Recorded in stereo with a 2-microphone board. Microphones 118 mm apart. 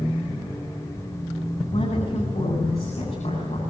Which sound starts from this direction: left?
A woman speaking, at 1.7 s.